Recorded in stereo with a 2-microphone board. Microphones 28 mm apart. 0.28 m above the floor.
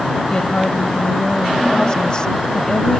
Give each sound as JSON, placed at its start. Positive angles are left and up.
{"t": 0.3, "sound": "a woman speaking", "side_deg": 30}